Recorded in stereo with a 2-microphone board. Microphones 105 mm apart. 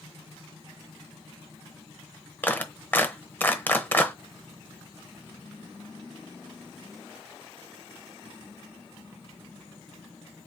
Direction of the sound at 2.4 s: 15° left (ahead or behind).